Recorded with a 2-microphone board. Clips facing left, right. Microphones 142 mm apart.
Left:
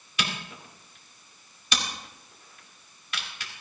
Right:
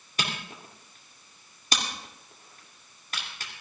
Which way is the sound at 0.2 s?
40° right (ahead or behind).